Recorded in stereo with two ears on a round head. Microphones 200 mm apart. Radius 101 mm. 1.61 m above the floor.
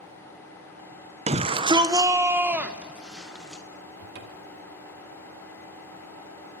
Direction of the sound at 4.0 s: 50° right (ahead or behind).